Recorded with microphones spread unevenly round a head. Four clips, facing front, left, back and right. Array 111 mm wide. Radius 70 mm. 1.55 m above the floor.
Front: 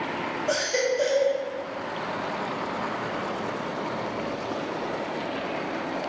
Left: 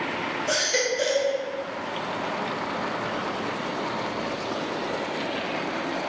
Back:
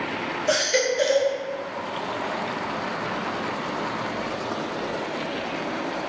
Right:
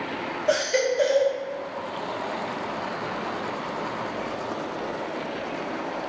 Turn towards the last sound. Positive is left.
turn(degrees=150)